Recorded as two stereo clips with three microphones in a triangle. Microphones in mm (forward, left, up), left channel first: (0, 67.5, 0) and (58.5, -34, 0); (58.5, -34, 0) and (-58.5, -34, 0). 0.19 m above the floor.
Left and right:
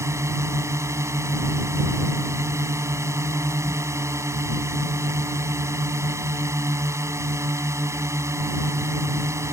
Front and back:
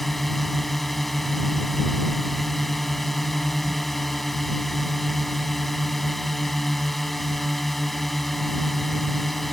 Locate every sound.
0.0 s a drone: 85° right